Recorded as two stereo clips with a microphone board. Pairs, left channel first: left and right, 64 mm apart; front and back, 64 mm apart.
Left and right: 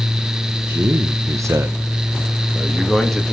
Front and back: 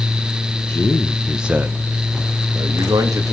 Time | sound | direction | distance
0.7 | a man speaking | 55° right | 0.9 m